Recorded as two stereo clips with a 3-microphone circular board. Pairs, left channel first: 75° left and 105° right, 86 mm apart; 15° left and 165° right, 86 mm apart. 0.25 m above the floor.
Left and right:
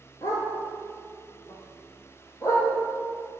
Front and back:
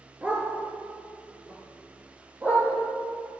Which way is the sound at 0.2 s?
125° left.